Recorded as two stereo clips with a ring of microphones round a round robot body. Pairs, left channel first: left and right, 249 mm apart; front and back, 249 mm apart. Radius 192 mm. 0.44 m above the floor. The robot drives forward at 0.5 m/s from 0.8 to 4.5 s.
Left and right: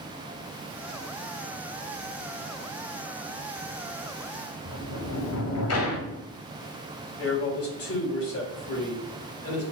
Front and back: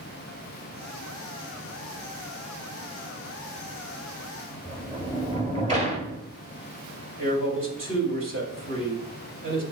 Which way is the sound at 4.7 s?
115° left.